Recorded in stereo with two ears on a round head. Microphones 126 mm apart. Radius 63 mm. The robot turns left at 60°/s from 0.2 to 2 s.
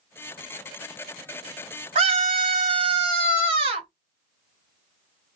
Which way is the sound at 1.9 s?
40° right (ahead or behind).